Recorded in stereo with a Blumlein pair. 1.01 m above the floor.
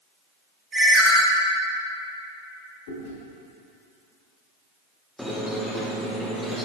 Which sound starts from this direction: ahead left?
Chewing, at 2.9 s.